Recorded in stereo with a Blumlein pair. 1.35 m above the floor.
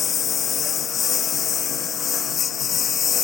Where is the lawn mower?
20° left.